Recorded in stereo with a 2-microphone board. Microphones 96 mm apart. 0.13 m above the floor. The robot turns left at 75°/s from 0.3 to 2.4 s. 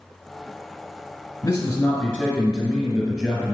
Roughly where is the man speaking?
Ahead left.